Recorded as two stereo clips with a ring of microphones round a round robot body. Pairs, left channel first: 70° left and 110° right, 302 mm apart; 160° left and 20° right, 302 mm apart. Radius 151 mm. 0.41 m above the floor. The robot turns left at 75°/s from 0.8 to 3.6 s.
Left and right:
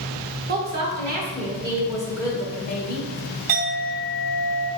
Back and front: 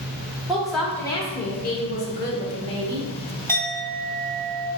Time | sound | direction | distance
0.5 | a woman speaking | 115° right | 0.9 m
3.5 | a clink | 120° right | 2.0 m